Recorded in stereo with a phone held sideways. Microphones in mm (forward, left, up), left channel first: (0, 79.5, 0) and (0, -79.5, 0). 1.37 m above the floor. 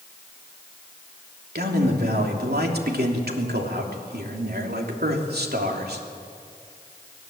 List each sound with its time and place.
1.6 s a man speaking: 75° right (ahead or behind), 3 m